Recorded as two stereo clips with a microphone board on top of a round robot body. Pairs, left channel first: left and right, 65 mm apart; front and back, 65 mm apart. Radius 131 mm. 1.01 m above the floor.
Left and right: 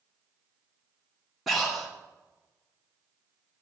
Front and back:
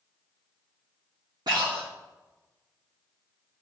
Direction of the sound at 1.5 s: 175° right.